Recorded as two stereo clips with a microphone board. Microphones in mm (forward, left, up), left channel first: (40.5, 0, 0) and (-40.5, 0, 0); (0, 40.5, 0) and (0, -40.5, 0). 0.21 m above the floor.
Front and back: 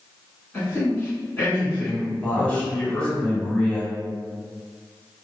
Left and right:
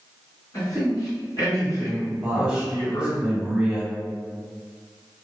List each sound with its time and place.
0.5 s a man speaking: 60° left, 1.9 m
2.2 s a man speaking: 35° right, 0.9 m